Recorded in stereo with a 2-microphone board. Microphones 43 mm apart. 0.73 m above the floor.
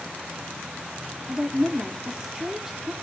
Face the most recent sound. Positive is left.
turn(degrees=-15)  # may be behind; listen again after turning